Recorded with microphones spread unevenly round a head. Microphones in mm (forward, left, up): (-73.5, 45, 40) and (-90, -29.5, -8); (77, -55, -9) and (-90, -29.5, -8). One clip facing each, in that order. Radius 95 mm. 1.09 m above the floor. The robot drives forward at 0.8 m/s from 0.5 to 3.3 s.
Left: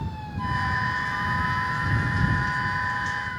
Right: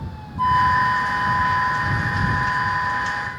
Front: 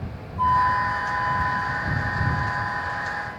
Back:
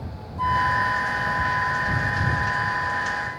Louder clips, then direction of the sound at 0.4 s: Right 10 dB, front 2 dB; 115° right.